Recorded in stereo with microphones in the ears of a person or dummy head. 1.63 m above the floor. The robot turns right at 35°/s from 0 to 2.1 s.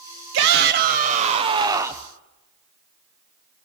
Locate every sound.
0.3 s a shout: 70° right, 0.9 m; by 2.1 s 10° right, 0.9 m